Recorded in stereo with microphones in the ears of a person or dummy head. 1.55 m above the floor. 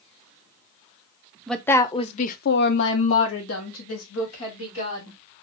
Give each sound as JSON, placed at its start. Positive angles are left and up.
{"t": 1.5, "sound": "a woman speaking", "side_deg": 0, "distance_m": 0.6}